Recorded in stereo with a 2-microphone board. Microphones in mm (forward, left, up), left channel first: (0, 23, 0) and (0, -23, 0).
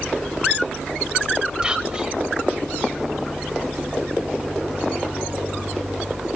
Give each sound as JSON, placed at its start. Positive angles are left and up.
{"t": 1.6, "sound": "whispering", "side_deg": -15, "distance_m": 1.8}